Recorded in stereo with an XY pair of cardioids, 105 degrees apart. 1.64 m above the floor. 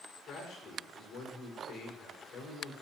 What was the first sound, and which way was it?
A man speaking, 70° left.